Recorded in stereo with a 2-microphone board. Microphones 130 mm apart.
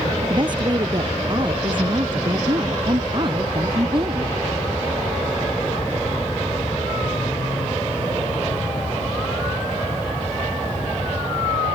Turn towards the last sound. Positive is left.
turn(degrees=-40)  # may be behind; listen again after turning